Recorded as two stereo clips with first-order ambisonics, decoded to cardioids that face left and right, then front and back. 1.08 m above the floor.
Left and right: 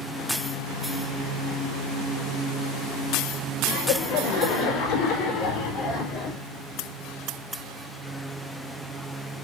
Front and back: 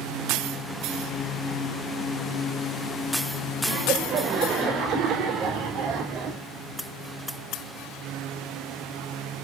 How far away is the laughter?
About 5.5 m.